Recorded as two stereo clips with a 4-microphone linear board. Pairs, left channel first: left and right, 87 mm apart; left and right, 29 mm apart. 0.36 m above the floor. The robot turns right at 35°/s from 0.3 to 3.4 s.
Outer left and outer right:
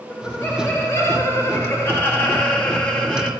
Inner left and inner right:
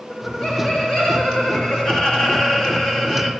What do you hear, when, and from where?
0.1 s laughter: 25° left (ahead or behind), 1.1 m; by 3.3 s 5° left (ahead or behind), 1.1 m